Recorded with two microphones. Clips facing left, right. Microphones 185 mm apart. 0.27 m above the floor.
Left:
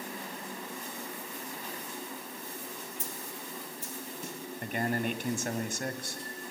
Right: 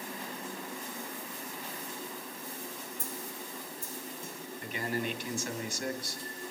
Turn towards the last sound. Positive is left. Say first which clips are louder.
# left 3 dB
turn(degrees=50)  # may be behind; listen again after turning